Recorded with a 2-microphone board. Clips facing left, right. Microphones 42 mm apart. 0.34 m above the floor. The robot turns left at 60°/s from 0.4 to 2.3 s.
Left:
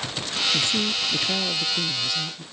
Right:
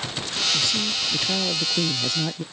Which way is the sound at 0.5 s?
45° left.